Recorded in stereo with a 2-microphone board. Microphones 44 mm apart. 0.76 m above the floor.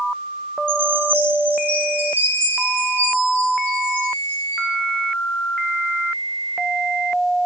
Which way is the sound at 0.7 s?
50° right (ahead or behind).